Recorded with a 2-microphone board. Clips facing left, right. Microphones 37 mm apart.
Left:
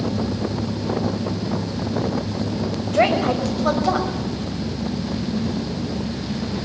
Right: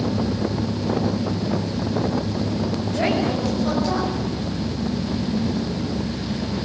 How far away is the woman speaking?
About 6 m.